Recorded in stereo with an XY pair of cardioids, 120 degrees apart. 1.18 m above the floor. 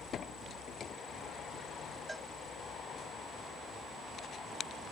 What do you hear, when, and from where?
2.1 s a cowbell: 10° right